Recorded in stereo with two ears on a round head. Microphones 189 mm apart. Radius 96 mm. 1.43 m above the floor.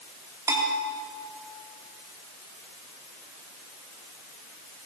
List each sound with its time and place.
0.5 s a bell: 15° right (ahead or behind), 4 m